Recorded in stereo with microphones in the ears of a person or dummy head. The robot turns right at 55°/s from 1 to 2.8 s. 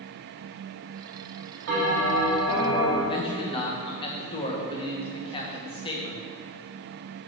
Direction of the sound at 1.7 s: 70° right.